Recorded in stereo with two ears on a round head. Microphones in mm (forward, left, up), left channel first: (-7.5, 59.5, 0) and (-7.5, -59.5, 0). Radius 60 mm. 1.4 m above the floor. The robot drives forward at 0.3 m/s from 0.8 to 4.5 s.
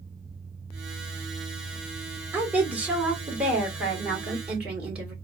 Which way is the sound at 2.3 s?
15° right (ahead or behind).